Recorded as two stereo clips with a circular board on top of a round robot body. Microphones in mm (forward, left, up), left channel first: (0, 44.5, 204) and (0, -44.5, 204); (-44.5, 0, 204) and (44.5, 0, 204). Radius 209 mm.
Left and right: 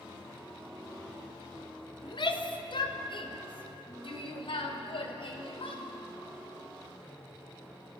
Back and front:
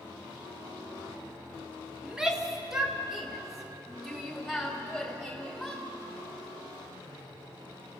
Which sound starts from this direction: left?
A shout, at 2.0 s.